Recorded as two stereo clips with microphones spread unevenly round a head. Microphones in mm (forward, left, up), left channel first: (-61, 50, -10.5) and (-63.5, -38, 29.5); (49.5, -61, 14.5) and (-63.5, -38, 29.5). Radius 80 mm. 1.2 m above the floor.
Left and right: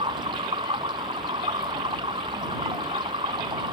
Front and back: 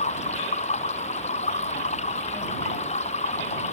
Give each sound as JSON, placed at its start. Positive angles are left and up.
{"t": 0.0, "sound": "running water", "azimuth_deg": -35}